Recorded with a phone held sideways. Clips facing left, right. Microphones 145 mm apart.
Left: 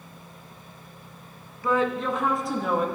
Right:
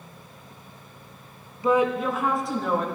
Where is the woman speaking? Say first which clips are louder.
Right 3 dB; 20° right (ahead or behind), 0.7 m; by 2.9 s 5° left (ahead or behind), 1.3 m.